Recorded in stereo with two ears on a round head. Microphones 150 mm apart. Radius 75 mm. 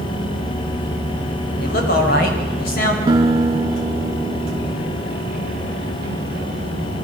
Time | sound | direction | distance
1.6 | a man speaking | 60° left (ahead or behind) | 6.5 m
3.1 | a guitar | 20° right (ahead or behind) | 2.5 m